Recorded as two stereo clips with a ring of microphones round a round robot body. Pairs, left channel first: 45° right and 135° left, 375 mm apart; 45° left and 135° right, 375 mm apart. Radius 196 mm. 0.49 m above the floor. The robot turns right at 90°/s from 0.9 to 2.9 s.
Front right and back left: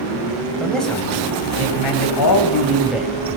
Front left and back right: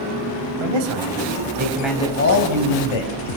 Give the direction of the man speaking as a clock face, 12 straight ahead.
4 o'clock.